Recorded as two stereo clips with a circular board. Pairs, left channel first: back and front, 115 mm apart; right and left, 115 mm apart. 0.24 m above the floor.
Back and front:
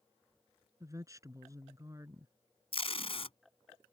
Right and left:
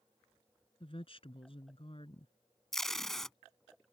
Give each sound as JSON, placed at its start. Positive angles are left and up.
{"t": 0.8, "sound": "a woman speaking", "azimuth_deg": -60}
{"t": 2.7, "sound": "tape being pulled", "azimuth_deg": -175}